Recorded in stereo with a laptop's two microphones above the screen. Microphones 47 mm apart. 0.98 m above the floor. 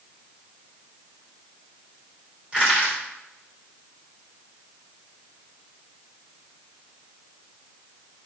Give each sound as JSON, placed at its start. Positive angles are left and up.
{"t": 2.5, "sound": "crushing", "side_deg": -25, "distance_m": 3.0}